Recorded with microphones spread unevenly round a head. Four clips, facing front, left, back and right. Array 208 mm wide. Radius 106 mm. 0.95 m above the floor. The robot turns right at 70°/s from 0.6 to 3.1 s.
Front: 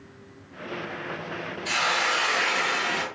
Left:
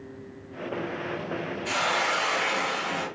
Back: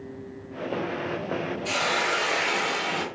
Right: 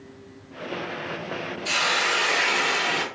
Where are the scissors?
I don't hear scissors.